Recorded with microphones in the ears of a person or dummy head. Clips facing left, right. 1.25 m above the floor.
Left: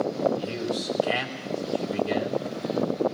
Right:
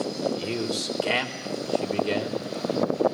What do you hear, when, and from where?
0.3 s a man speaking: 85° right, 4.5 m